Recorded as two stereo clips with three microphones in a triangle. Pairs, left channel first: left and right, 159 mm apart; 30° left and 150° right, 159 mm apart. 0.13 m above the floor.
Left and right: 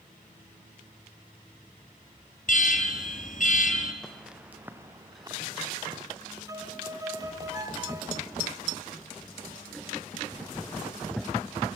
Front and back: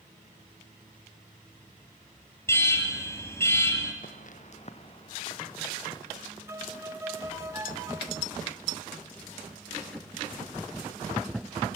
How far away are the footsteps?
About 2 m.